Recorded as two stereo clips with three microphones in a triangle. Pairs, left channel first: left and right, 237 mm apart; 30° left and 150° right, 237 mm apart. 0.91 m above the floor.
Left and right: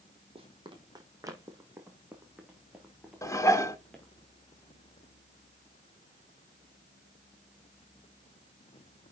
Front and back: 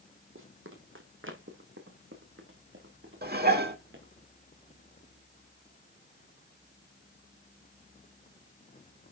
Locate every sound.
0.3 s running footsteps: 155° right, 1.9 m; by 4.2 s 175° left, 3.5 m
3.2 s dishes clattering: 165° left, 1.4 m